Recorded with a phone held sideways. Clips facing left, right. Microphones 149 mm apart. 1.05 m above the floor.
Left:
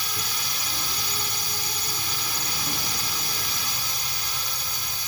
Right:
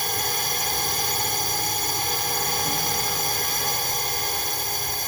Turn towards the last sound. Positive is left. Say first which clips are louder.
# right 7 dB
turn(degrees=-55)  # may be behind; listen again after turning